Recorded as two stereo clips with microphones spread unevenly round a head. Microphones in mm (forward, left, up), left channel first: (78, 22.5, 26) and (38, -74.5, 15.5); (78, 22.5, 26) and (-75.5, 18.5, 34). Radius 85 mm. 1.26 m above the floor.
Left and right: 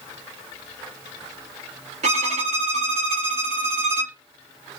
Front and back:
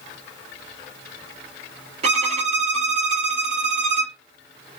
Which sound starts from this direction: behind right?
A violin, at 2.0 s.